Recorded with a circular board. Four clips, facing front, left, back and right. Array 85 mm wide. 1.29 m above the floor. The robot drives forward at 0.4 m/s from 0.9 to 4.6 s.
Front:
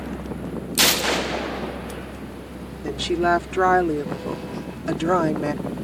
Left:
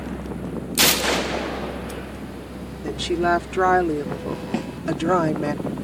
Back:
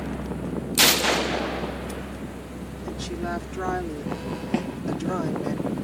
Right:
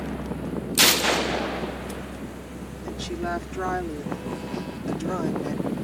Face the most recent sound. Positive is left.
turn(degrees=140)